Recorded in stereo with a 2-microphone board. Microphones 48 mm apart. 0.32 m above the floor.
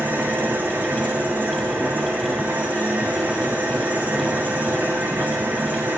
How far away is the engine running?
About 9 m.